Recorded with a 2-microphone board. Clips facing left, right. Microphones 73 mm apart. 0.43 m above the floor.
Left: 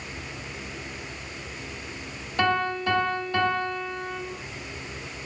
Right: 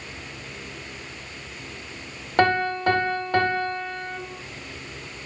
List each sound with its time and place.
2.4 s a piano: 60° right (ahead or behind), 1.1 m